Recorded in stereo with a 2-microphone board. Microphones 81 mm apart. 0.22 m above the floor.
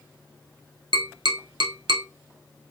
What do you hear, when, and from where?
0.9 s tapping: 80° right, 0.8 m